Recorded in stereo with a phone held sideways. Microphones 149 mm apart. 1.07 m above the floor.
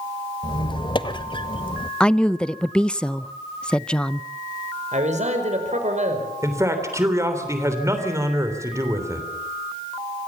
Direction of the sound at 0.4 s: 35° left (ahead or behind).